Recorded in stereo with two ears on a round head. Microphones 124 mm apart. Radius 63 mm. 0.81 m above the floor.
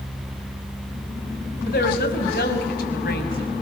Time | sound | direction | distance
1.7 | a woman speaking | 75° left (ahead or behind) | 5.5 m